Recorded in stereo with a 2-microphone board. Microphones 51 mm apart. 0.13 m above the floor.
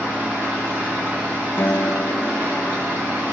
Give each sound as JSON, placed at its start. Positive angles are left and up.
{"t": 0.0, "sound": "an engine running", "side_deg": -45, "distance_m": 5.5}
{"t": 1.6, "sound": "a guitar", "side_deg": 55, "distance_m": 0.7}